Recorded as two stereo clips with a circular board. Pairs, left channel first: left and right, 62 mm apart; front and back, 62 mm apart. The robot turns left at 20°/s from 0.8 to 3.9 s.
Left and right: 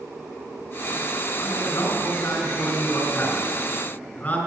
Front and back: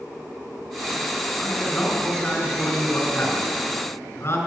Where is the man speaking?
70° left, 2 m; by 4.4 s 20° left, 2 m.